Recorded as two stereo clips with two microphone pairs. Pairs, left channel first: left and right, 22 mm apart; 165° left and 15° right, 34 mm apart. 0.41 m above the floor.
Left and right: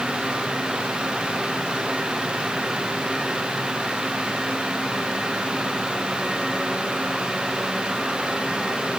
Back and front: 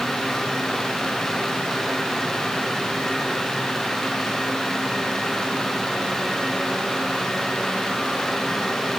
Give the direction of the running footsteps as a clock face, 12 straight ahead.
No running footsteps in this recording.